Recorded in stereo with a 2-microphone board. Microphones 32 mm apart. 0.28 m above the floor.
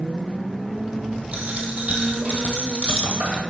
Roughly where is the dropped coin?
Right.